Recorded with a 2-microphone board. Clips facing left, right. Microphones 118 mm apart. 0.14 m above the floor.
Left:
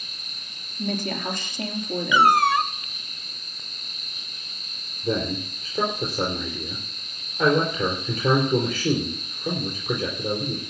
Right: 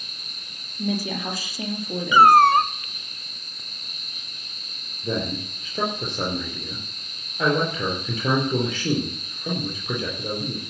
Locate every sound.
0.8 s a woman speaking: 5° right (ahead or behind), 3 m
2.1 s a cat meowing: 55° right (ahead or behind), 0.6 m
5.0 s a man speaking: 5° left (ahead or behind), 3.5 m